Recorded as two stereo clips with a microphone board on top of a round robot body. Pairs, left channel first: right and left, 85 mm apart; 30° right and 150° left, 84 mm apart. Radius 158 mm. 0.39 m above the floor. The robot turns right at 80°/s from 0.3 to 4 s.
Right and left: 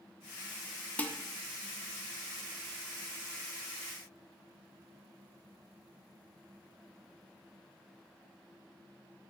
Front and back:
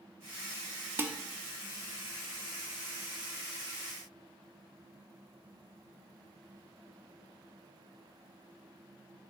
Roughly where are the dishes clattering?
Behind.